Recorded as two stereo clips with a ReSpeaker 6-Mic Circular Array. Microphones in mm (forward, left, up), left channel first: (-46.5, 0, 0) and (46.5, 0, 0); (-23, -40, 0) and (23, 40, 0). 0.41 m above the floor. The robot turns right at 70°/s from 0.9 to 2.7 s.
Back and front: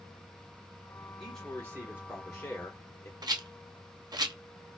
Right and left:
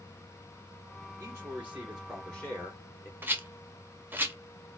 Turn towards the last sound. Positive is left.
turn(degrees=0)